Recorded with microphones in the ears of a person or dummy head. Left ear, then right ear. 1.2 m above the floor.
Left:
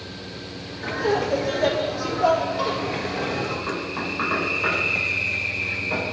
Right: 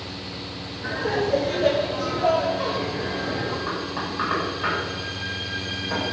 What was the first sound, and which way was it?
Laughter, 70° left (ahead or behind).